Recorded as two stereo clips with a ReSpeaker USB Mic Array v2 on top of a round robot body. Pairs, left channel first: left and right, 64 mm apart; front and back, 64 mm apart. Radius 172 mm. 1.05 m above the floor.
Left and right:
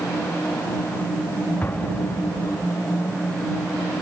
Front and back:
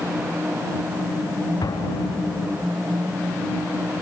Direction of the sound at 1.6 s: 25° left.